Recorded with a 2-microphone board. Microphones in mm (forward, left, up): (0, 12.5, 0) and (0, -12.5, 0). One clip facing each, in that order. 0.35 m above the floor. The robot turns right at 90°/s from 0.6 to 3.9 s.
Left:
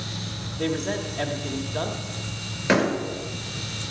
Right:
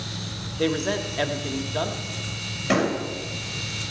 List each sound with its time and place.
0.6 s a man speaking: 120° right, 1.2 m; by 2.0 s 5° left, 1.2 m
2.7 s a door slam: 65° left (ahead or behind), 5 m; by 2.9 s 80° left, 5 m